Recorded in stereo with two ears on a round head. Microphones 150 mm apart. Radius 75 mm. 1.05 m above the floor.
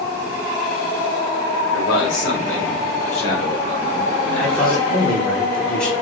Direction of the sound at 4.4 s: 25° left (ahead or behind).